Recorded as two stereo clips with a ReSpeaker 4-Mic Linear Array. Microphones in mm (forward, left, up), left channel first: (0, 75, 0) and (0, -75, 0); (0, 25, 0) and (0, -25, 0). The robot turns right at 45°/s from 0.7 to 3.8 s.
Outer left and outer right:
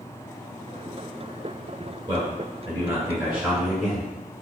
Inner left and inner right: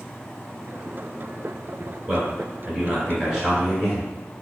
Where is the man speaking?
25° right (ahead or behind), 1.4 m; by 4.1 s centre (ahead or behind), 1.4 m.